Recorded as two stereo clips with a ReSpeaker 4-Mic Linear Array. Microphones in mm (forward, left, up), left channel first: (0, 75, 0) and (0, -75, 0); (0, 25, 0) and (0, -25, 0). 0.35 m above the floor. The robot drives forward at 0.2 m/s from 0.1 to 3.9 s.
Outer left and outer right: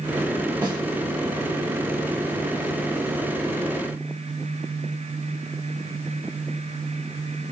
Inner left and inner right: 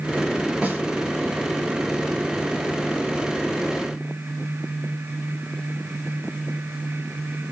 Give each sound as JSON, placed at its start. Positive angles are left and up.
{"t": 0.6, "sound": "a snare drum", "side_deg": -30, "distance_m": 1.6}